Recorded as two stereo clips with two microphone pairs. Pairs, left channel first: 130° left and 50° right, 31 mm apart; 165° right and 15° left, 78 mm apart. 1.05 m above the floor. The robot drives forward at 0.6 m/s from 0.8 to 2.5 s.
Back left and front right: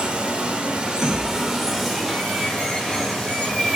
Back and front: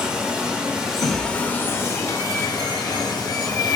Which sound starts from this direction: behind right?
A thud, at 1.0 s.